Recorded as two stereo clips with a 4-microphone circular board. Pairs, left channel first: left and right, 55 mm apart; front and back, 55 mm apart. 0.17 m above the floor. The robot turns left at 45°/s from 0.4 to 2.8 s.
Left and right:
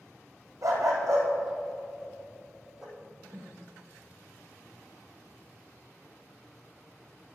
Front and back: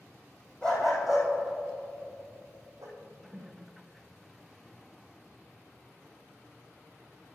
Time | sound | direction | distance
0.6 | a dog barking | 75° right | 2.5 m
3.0 | a whoosh | 140° right | 0.7 m